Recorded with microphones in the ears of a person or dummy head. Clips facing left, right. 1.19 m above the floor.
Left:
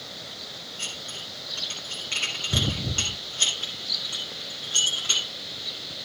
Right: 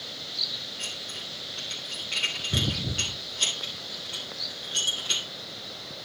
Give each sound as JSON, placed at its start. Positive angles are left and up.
{"t": 0.8, "sound": "dishes clattering", "side_deg": 50, "distance_m": 9.0}